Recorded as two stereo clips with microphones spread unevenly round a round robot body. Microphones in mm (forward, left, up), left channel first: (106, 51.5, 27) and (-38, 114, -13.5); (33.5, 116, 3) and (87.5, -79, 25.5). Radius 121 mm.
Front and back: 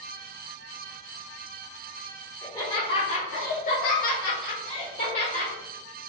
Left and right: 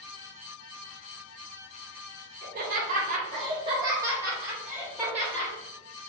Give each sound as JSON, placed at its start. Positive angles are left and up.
{"t": 2.4, "sound": "laughter", "azimuth_deg": -115, "distance_m": 0.8}